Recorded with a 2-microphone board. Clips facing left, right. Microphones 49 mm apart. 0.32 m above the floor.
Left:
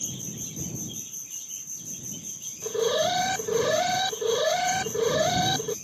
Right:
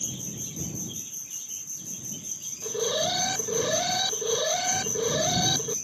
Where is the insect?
65° right (ahead or behind).